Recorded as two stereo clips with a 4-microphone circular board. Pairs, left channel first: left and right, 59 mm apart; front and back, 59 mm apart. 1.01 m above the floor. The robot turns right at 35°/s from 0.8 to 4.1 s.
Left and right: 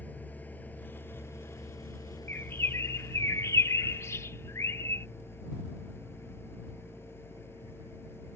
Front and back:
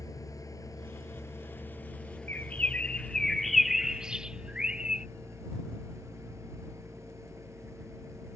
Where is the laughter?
No laughter in this recording.